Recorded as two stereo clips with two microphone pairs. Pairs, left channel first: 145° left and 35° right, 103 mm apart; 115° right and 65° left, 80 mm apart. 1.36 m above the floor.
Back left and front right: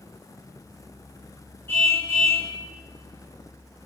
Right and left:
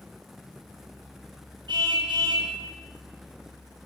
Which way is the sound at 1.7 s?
75° left.